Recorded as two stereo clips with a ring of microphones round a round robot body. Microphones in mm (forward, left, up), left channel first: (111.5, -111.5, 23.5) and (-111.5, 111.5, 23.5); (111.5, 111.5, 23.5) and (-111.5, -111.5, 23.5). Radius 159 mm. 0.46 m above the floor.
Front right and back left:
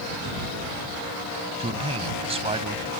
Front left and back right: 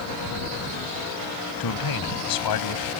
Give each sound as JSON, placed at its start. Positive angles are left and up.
{"t": 1.6, "sound": "a man speaking", "azimuth_deg": 65}